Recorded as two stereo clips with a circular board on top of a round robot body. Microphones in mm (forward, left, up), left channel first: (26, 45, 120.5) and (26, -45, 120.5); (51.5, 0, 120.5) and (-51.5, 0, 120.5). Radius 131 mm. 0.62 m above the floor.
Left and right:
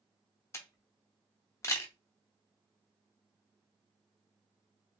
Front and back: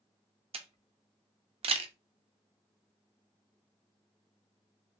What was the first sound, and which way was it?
A camera shutter, 150° left.